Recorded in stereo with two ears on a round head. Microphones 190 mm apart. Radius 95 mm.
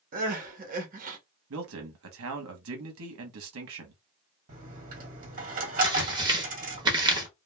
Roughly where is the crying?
Right.